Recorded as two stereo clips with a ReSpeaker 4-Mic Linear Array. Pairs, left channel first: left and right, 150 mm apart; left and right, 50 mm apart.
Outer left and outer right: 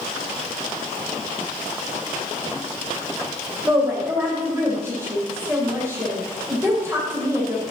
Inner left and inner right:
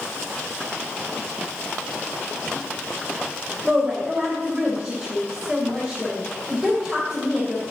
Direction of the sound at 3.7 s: 15° right (ahead or behind).